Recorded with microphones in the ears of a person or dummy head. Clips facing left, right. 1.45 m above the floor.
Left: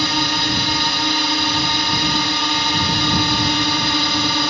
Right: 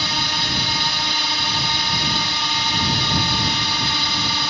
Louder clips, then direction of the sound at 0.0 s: Left 6 dB; 50° left (ahead or behind).